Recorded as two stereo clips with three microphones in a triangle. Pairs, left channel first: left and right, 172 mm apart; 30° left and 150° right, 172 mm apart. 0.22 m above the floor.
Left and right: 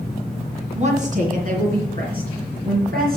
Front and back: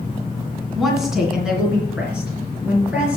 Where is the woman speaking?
60° right, 2 m; by 3.2 s 70° right, 5 m.